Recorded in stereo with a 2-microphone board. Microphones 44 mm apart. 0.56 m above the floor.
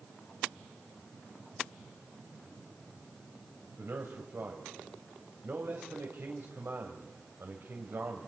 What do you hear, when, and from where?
3.8 s a man speaking: 70° right (ahead or behind), 2.5 m